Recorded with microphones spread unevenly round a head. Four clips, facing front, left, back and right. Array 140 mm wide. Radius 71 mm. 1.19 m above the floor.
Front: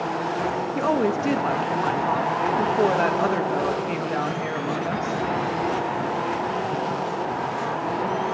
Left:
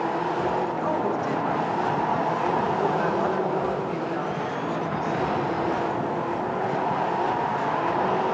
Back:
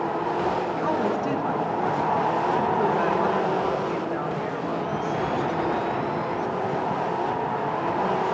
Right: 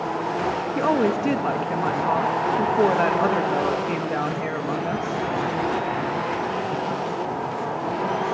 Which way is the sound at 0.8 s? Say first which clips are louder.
Right 4 dB, front 2 dB; 50° right.